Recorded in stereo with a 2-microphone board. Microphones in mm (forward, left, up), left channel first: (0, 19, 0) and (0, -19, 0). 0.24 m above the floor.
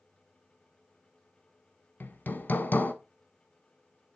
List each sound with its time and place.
2.0 s hammering: 60° left (ahead or behind), 0.9 m